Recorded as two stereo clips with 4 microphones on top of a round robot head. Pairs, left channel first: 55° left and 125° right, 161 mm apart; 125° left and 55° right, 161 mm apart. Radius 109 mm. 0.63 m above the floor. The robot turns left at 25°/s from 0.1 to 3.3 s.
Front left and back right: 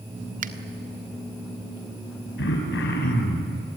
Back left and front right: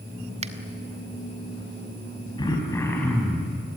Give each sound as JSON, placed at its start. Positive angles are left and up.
{"t": 0.4, "sound": "a finger snap", "azimuth_deg": -100, "distance_m": 1.4}
{"t": 2.4, "sound": "throat clearing", "azimuth_deg": 60, "distance_m": 4.5}